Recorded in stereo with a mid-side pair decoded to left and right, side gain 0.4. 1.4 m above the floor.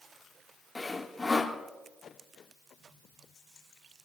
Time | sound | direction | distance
0.8 | sawing | 20° left | 2 m